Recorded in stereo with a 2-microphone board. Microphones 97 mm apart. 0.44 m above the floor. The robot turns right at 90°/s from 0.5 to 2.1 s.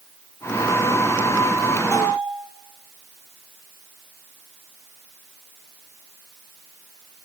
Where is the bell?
35° left (ahead or behind), 9 m; by 2.3 s 50° left (ahead or behind), 9 m.